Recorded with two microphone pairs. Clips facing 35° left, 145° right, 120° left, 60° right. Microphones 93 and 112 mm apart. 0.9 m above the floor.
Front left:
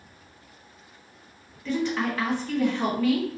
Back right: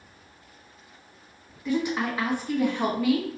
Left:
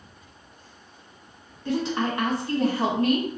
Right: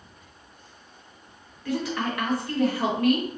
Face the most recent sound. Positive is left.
turn(degrees=155)